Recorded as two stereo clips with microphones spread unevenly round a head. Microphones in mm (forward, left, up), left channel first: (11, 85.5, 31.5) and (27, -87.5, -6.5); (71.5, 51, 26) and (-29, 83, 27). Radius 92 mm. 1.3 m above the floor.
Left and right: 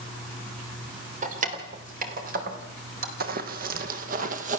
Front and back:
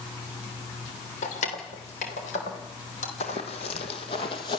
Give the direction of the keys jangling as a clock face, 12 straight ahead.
1 o'clock.